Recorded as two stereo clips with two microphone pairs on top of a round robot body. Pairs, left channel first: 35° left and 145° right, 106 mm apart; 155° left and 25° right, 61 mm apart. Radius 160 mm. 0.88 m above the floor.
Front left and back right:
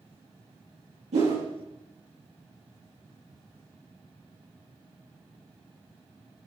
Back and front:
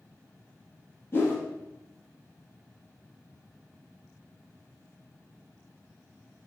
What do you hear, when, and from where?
1.1 s a whoosh: 150° right, 5 m